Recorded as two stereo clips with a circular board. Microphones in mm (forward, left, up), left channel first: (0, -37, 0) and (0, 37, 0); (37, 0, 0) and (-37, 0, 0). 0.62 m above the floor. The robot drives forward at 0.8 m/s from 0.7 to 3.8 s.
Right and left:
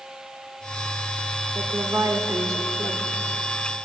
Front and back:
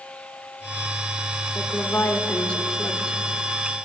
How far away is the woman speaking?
About 2.0 m.